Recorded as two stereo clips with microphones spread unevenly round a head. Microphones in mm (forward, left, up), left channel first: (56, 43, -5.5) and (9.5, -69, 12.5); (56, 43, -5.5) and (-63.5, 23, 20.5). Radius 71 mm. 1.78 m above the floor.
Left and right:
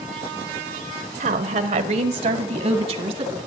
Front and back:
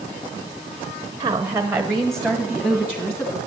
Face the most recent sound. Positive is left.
turn(degrees=-70)